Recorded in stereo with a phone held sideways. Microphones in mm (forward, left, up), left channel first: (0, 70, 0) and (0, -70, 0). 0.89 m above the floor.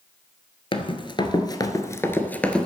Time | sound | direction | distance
0.7 | running footsteps | 40° left (ahead or behind) | 1.1 m